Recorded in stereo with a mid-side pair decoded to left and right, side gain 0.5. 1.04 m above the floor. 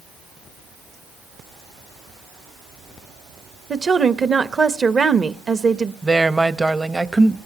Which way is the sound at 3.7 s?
35° right.